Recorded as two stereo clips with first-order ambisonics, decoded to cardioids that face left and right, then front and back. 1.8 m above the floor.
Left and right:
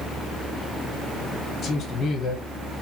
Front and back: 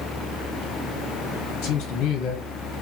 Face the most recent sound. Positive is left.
turn(degrees=25)